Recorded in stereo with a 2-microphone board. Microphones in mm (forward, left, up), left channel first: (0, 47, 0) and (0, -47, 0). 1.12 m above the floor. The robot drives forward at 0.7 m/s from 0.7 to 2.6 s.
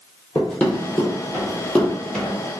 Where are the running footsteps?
10° left (ahead or behind), 1.6 m; by 2.4 s 5° left (ahead or behind), 1.5 m.